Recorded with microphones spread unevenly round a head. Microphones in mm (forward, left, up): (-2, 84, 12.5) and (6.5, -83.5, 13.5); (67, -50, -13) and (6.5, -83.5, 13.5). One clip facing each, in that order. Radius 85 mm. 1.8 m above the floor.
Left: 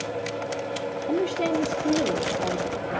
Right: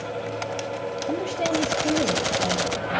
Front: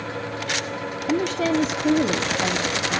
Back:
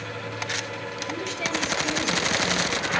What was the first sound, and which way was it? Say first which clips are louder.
A woman speaking: left 2 dB, front 9 dB; 20° right.